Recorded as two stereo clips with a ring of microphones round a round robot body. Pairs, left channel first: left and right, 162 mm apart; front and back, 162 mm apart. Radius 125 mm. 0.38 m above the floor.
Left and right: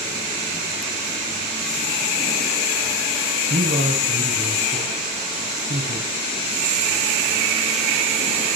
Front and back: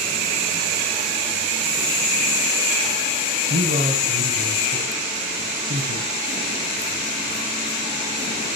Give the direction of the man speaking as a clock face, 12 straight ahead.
4 o'clock.